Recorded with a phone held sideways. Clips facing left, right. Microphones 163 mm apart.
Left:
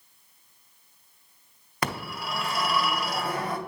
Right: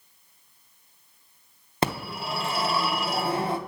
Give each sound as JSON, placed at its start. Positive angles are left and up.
{"t": 1.8, "sound": "a phone ringing", "side_deg": -25, "distance_m": 0.7}